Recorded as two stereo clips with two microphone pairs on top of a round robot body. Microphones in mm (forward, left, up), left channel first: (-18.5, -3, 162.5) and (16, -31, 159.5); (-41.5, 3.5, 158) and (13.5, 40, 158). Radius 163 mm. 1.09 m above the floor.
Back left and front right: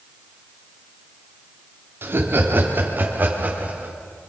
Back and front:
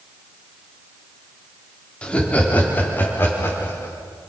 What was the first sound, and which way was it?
Laughter, 70° right.